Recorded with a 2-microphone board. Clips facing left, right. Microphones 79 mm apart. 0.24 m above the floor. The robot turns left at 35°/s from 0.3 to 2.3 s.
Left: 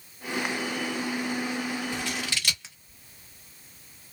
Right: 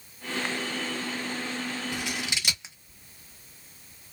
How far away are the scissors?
About 0.9 m.